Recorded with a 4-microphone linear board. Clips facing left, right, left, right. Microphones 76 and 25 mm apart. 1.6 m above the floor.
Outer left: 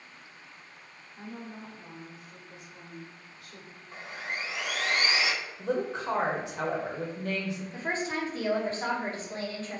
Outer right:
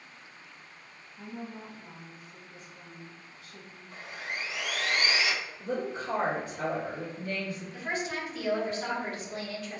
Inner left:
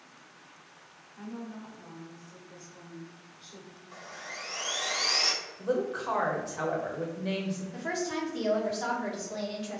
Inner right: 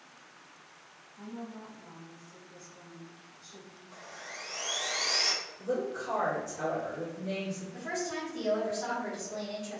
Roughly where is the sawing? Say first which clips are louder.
Outer left 1 dB, inner left 3 dB; left.